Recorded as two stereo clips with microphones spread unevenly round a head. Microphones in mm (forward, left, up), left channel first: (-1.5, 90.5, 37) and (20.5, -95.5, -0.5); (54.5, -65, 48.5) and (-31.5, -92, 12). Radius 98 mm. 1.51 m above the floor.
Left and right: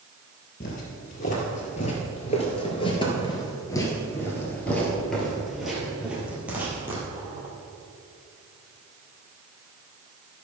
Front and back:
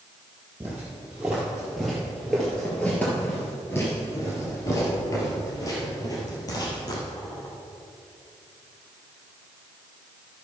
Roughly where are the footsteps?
Left.